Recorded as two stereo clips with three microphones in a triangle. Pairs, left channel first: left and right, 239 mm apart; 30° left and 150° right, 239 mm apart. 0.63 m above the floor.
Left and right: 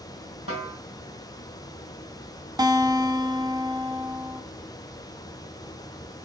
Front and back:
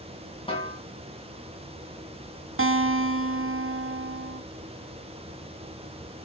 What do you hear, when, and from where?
0.5 s a snare drum: 95° left, 3 m
2.6 s a guitar: 165° right, 1.2 m